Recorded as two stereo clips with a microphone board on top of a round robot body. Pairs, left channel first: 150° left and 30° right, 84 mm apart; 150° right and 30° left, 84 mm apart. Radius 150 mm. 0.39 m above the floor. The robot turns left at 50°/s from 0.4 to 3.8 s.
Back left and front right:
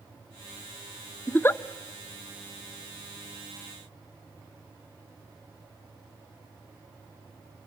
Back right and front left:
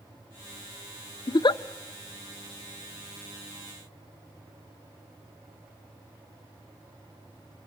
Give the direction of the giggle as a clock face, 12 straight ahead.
5 o'clock.